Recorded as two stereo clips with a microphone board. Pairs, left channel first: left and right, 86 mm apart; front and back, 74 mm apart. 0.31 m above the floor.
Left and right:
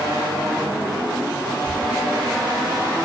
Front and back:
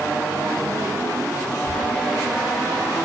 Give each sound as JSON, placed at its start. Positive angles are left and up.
{"t": 1.7, "sound": "whispering", "azimuth_deg": -10, "distance_m": 4.5}